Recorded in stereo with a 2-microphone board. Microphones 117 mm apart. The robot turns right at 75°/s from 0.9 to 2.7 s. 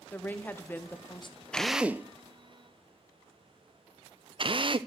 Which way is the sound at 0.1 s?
15° left.